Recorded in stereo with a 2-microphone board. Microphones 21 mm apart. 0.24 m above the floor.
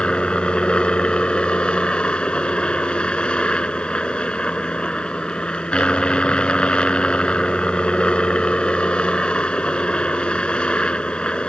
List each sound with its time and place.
0.0 s a helicopter: 55° left (ahead or behind)